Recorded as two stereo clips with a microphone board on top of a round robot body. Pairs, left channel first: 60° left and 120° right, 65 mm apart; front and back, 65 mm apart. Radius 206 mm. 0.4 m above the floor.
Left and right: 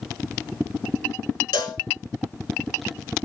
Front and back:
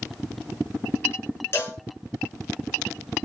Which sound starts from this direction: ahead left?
A cowbell, at 1.5 s.